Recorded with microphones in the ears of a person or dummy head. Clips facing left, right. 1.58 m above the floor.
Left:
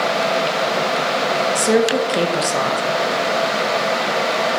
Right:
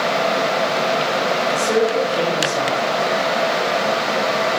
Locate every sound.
1.6 s a woman speaking: 65° left (ahead or behind), 1.3 m